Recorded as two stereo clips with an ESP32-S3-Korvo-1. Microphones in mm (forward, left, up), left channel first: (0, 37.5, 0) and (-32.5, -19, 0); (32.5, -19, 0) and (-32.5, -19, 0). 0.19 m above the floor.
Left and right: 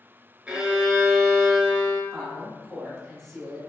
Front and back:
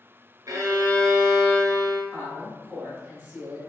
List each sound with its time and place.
0.5 s a violin: 165° left, 0.8 m
2.1 s a woman speaking: 135° left, 1.7 m